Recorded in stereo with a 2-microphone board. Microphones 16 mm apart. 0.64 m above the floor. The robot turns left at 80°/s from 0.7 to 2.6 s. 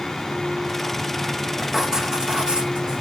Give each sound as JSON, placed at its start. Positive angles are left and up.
{"t": 1.6, "sound": "writing", "azimuth_deg": -10, "distance_m": 1.4}